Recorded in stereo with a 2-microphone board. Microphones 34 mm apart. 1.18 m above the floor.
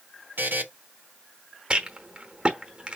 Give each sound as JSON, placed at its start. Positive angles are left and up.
{"t": 0.4, "sound": "a buzzer", "side_deg": -75, "distance_m": 0.9}
{"t": 1.7, "sound": "a rattle", "side_deg": -30, "distance_m": 1.0}